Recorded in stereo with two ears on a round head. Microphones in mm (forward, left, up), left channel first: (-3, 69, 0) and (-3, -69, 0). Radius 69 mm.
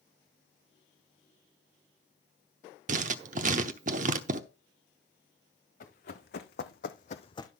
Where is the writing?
50° right (ahead or behind), 0.9 m.